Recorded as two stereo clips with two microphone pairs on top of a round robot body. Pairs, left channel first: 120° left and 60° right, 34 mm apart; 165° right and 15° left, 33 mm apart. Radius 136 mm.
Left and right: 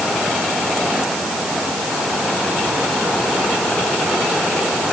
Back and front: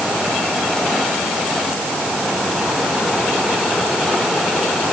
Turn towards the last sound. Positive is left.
No sound to turn to.